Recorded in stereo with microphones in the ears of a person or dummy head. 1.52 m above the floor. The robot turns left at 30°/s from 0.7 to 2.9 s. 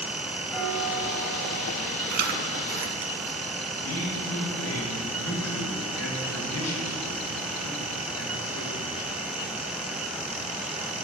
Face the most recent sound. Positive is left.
turn(degrees=85)